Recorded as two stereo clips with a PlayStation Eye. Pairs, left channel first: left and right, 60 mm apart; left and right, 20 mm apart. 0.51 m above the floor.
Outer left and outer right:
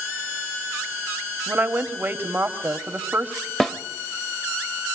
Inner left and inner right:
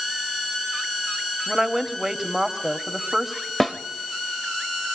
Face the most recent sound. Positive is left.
turn(degrees=5)  # may be behind; listen again after turning